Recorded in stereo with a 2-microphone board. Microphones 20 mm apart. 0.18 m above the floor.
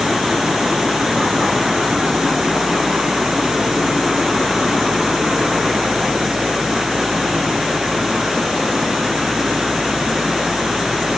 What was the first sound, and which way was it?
Only background noise.